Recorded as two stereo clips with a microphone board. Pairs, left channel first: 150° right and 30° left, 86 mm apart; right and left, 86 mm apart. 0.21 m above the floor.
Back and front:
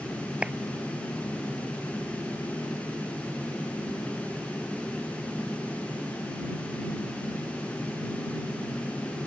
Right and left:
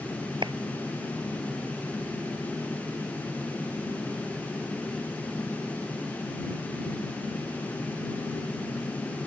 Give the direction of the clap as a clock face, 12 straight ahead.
8 o'clock.